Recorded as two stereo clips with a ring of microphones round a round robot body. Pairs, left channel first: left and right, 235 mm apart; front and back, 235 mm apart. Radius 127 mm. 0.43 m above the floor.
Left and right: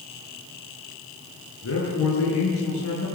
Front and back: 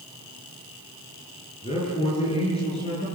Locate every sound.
1.6 s a man speaking: 65° left, 7.5 m